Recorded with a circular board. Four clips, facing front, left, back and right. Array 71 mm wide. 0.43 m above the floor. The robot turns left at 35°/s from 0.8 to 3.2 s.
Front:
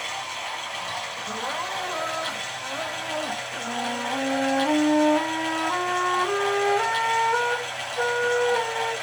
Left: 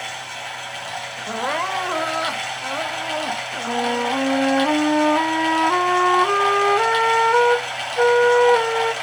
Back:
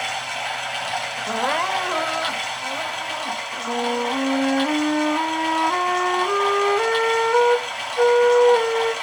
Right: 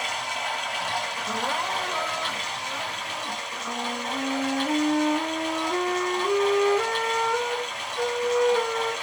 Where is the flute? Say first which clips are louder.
Left 10 dB, back 6 dB; 100° left, 0.6 m.